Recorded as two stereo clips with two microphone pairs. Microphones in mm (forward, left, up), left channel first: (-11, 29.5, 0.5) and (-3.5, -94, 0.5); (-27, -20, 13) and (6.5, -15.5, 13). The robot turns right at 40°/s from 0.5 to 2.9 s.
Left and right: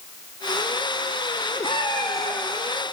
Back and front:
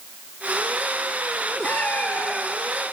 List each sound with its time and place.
1.6 s a cat meowing: 135° left, 5 m; by 2.4 s 165° left, 5 m